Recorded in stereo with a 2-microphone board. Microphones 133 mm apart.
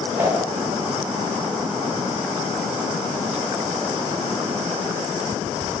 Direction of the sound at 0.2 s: 15° right (ahead or behind).